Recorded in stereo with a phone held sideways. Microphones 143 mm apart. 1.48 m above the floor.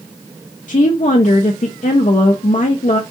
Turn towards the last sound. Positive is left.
turn(degrees=55)  # may be behind; listen again after turning